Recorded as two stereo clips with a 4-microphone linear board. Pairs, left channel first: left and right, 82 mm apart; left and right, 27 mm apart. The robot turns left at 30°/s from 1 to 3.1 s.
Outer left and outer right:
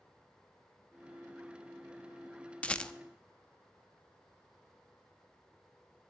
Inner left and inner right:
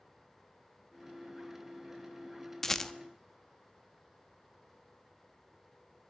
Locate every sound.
2.6 s a rattle: 15° left (ahead or behind), 0.5 m; by 2.9 s 10° left (ahead or behind), 0.5 m